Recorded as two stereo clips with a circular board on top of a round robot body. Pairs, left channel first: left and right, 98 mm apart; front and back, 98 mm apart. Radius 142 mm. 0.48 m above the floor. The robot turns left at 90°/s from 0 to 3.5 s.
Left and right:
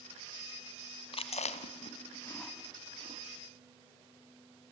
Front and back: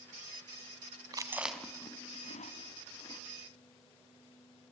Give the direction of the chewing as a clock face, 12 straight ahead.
8 o'clock.